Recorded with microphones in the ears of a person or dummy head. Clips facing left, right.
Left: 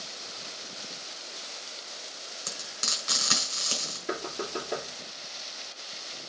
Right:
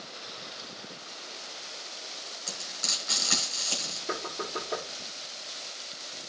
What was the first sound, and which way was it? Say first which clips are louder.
Frying: left 1 dB; 80° left.